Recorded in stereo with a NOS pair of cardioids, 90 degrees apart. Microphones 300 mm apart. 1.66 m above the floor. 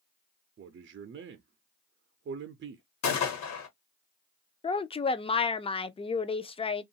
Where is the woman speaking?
20° left, 0.6 m.